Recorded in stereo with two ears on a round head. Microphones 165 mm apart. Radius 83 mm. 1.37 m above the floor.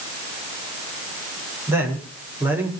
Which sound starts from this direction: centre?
A man speaking, at 1.7 s.